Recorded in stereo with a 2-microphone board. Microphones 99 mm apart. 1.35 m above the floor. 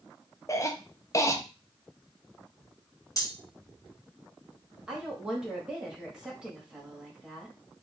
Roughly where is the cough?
Left.